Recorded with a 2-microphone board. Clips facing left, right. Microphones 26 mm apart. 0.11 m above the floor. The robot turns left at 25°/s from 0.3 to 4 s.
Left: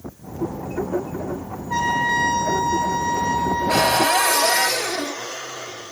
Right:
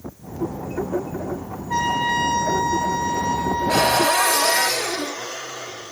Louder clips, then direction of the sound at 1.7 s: Left 1 dB; 160° right.